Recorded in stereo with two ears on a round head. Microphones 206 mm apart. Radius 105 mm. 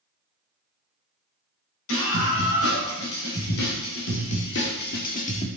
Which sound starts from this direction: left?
A scream, at 1.9 s.